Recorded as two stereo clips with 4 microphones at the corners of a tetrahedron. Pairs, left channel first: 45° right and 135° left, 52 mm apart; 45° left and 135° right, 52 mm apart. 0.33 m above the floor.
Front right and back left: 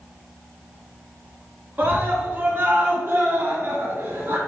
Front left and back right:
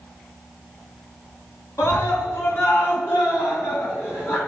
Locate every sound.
1.8 s a scream: 75° left, 3.5 m; by 4.4 s 85° left, 4.5 m